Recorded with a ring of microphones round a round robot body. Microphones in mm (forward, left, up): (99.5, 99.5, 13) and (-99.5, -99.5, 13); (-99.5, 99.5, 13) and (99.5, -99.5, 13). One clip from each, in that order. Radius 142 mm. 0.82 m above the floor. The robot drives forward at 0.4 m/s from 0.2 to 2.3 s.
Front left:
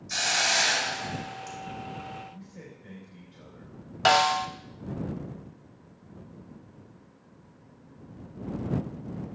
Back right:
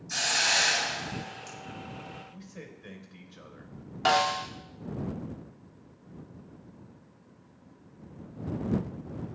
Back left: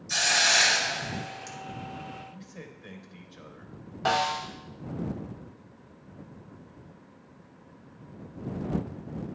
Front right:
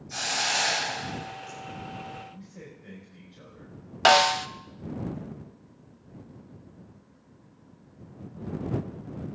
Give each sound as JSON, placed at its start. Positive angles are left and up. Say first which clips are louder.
{"t": 0.1, "sound": "a hiss", "louder": "front left 1 dB, back left 5 dB", "azimuth_deg": 130, "distance_m": 3.0}
{"t": 2.3, "sound": "a man speaking", "louder": "back right 1 dB, back left 1 dB", "azimuth_deg": -175, "distance_m": 3.5}
{"t": 4.0, "sound": "a snare drum", "louder": "front left 4 dB, front right 7 dB", "azimuth_deg": -30, "distance_m": 0.7}